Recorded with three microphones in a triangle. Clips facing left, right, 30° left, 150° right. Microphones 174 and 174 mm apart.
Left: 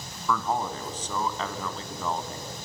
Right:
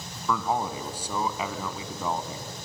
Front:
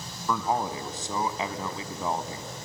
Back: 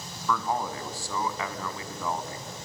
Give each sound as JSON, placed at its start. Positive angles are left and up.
{"t": 0.3, "sound": "a man speaking", "azimuth_deg": -20, "distance_m": 1.4}